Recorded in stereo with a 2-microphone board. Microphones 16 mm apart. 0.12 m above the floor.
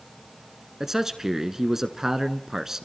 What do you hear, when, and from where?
0.8 s a man speaking: 25° right (ahead or behind), 1.1 m